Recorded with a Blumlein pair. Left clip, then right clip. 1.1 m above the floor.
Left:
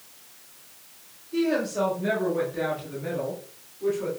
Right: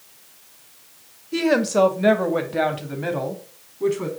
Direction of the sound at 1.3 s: 30° right.